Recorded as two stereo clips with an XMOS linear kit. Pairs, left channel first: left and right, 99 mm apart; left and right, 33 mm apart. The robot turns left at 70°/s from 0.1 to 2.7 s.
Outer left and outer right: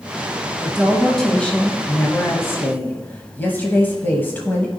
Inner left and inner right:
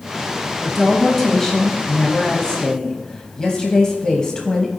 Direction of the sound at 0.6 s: 10° right (ahead or behind).